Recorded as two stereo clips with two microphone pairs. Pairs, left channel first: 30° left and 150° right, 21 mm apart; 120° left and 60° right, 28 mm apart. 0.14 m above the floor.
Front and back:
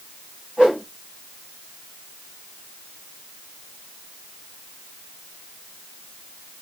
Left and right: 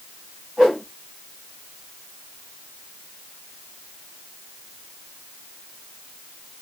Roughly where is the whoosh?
Behind right.